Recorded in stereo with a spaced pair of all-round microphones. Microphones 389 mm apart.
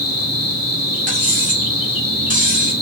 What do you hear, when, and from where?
0.0 s an insect: 40° left (ahead or behind), 2 m
1.1 s cutlery clinking: 20° right (ahead or behind), 1.3 m